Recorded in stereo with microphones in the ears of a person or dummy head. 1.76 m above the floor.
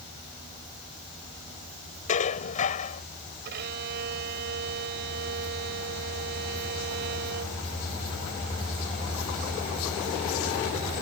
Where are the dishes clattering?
40° left (ahead or behind).